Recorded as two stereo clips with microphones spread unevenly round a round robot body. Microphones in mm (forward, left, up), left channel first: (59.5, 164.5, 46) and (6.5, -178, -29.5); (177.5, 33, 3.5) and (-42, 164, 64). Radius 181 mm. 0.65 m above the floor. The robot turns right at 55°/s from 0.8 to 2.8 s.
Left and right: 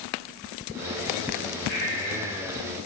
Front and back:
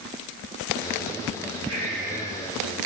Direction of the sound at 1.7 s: 145° left.